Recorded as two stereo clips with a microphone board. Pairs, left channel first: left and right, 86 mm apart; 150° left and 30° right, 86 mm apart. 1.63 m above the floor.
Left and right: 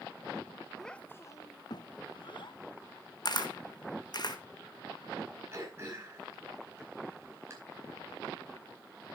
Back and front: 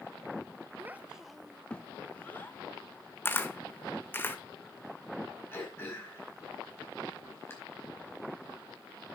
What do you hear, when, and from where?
0.8 s a child speaking: 5° left, 0.6 m; by 2.6 s 85° left, 1.5 m
3.2 s a camera shutter: 90° left, 1.3 m
5.5 s throat clearing: 150° right, 4.5 m